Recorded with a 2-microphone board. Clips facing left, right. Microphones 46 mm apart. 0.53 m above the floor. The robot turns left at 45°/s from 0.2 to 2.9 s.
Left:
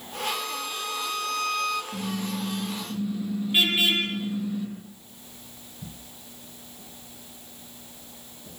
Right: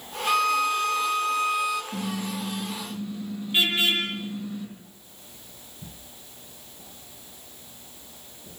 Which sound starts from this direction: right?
A violin, at 0.3 s.